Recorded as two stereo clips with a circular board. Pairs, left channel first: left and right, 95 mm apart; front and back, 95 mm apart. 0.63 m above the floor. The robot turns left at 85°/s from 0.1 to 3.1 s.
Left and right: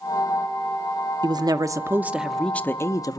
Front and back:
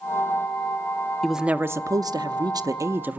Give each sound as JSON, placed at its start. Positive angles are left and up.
{"t": 1.2, "sound": "a woman speaking", "azimuth_deg": -90, "distance_m": 0.7}